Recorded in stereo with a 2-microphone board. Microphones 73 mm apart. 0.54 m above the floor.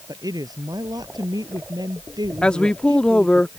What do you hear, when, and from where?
0.1 s a woman speaking: 70° right (ahead or behind); by 3.4 s 85° right
2.4 s a woman speaking: 15° left (ahead or behind)